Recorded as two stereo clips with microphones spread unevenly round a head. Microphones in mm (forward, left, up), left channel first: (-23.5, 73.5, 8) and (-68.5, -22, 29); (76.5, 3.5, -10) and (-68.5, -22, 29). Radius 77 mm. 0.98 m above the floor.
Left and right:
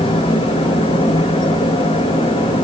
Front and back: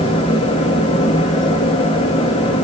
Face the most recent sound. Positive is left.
turn(degrees=50)